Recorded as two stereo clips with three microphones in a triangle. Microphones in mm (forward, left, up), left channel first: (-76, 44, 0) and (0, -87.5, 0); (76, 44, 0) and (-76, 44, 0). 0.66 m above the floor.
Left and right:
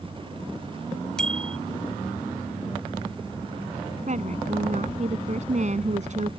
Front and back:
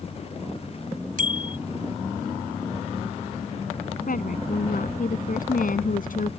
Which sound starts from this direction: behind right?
A bicycle bell, at 1.2 s.